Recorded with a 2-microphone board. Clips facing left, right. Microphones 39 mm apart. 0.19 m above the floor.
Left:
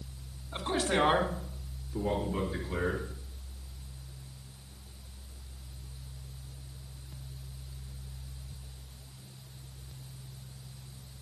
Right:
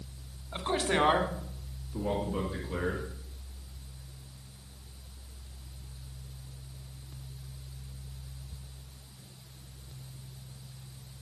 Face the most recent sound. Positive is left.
turn(degrees=0)  # may be behind; listen again after turning